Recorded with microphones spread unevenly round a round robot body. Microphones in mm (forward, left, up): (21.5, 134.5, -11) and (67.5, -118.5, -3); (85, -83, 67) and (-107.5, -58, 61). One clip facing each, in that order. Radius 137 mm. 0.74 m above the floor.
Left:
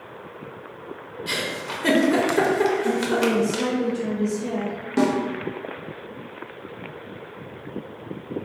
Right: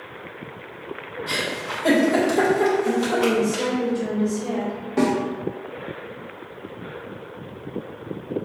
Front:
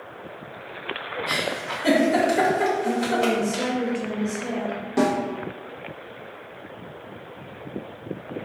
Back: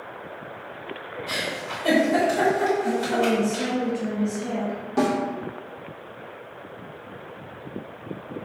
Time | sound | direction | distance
1.3 | a giggle | 50° left | 0.7 m
2.8 | a woman speaking | 95° left | 1.6 m
5.0 | a snare drum | 75° left | 1.0 m